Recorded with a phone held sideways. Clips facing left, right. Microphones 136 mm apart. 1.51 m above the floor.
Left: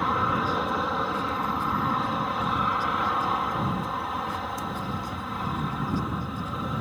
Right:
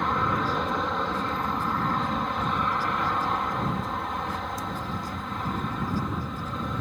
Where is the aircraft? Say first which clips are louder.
Even; 5° left (ahead or behind).